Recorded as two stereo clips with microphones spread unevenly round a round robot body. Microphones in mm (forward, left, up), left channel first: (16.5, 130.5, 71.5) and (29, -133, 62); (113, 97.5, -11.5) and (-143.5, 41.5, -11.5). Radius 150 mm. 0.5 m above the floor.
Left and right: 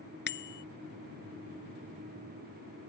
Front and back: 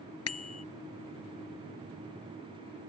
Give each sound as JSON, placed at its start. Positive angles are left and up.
{"t": 0.3, "sound": "a bicycle bell", "azimuth_deg": 40}